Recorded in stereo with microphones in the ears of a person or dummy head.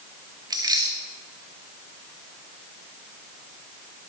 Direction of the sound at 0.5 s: 25° right (ahead or behind).